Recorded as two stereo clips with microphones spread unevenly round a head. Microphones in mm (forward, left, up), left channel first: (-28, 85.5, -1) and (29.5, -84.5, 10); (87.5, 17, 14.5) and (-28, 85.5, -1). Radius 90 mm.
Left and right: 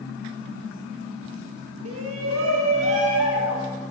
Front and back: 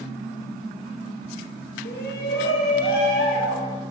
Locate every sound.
1.9 s a shout: 65° right, 1.5 m; by 3.7 s 45° right, 3.5 m